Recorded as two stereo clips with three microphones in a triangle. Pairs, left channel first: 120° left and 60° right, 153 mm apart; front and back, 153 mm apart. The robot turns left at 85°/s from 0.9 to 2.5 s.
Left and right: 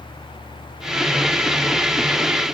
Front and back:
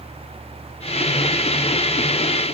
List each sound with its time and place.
Only background noise.